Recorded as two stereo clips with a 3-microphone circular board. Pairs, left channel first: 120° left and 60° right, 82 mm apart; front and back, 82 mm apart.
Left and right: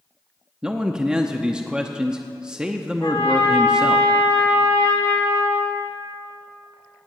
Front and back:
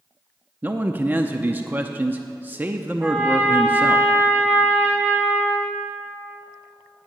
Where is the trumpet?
115° left, 3 m.